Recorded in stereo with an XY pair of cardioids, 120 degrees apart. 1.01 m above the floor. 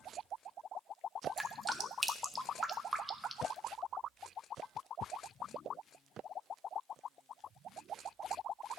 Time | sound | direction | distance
1.4 | dripping | 15° right | 0.8 m